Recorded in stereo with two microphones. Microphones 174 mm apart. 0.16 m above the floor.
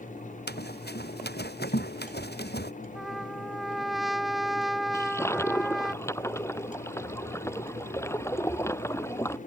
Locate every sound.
0.5 s running footsteps: 70° left (ahead or behind)
3.0 s a trumpet: centre (ahead or behind)
4.9 s a toilet flushing: 15° left (ahead or behind)